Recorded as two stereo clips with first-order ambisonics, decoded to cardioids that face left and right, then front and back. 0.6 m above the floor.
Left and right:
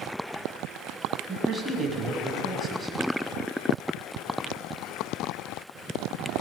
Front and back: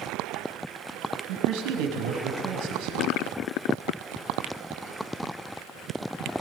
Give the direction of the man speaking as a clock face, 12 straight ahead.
6 o'clock.